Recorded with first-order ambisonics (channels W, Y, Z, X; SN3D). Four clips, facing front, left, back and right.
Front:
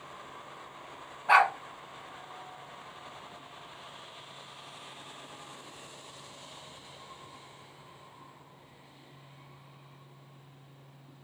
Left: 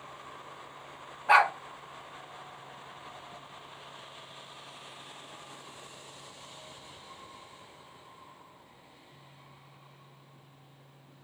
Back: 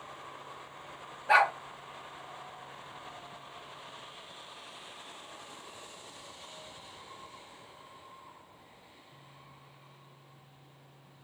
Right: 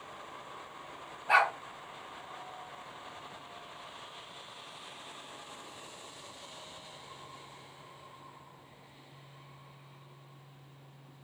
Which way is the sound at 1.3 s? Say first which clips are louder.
Left 4 dB, front 2 dB; 45° left.